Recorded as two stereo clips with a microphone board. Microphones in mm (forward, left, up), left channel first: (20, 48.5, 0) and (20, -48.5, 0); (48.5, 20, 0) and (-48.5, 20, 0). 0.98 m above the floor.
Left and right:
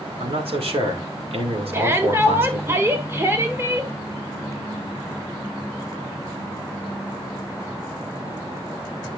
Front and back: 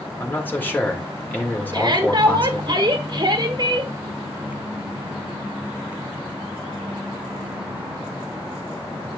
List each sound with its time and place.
0.2 s a man speaking: 70° right, 2 m
1.7 s a shout: 150° right, 1.3 m